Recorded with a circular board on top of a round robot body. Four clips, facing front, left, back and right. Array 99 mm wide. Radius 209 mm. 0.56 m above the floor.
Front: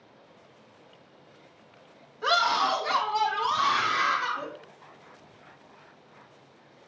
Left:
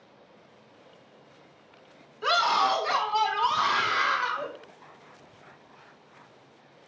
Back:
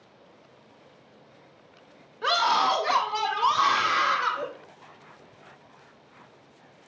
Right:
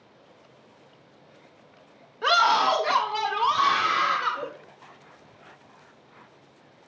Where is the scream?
115° right, 2.5 m; by 4.5 s 140° right, 4 m.